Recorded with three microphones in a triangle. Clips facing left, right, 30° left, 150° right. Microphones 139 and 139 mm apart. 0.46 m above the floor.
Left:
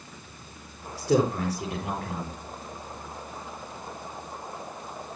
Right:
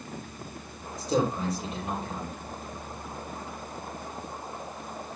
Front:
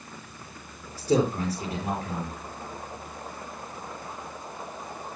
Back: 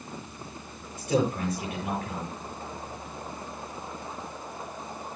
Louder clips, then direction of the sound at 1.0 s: Left 3 dB, front 2 dB; 85° left.